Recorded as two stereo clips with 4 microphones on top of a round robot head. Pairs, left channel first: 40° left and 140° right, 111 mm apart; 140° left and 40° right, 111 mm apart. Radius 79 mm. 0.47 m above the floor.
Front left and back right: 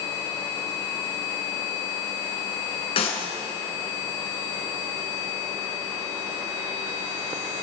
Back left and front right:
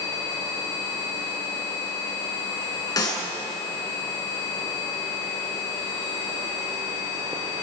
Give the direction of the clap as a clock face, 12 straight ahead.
9 o'clock.